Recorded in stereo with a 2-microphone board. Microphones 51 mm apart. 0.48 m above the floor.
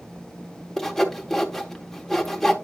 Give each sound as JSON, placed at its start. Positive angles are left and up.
{"t": 0.8, "sound": "sawing", "side_deg": 5, "distance_m": 0.9}